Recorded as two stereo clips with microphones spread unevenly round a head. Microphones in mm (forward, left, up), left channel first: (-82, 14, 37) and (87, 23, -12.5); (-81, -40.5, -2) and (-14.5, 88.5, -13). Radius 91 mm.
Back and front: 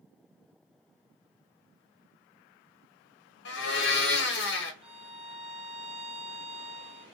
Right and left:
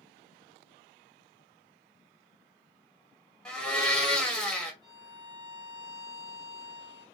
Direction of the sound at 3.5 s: 155° left.